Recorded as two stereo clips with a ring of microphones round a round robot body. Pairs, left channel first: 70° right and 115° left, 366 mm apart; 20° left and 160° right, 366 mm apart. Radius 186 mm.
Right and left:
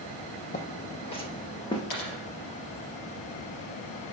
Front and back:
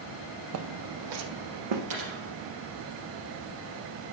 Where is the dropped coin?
105° right, 3.5 m.